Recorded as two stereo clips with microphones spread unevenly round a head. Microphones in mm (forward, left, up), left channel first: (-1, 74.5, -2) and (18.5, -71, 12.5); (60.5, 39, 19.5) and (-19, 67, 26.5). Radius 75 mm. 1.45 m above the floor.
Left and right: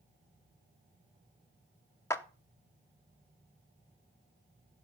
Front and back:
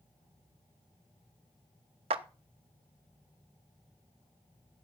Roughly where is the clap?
Behind.